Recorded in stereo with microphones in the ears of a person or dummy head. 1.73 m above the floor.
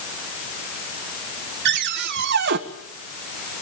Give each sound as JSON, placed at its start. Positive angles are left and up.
{"t": 1.6, "sound": "a cupboard door", "side_deg": -55, "distance_m": 1.7}